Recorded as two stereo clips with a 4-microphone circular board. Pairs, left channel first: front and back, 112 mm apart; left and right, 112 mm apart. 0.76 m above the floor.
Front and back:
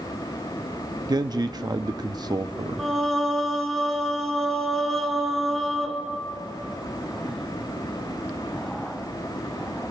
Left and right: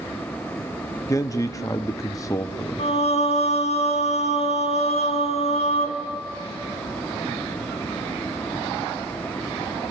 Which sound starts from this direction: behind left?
A man speaking, at 1.1 s.